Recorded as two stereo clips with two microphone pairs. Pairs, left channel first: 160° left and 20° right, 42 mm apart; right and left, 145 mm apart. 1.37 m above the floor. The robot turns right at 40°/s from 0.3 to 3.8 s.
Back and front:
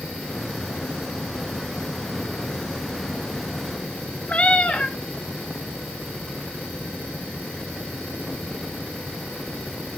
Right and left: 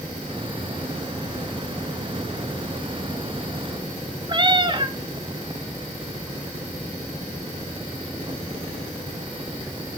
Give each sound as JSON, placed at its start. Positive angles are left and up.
{"t": 4.3, "sound": "a cat meowing", "azimuth_deg": 120, "distance_m": 0.9}